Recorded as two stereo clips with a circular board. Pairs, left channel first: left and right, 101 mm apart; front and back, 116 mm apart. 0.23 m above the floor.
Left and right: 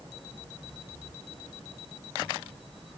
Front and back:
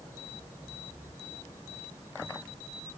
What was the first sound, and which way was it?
Only background noise.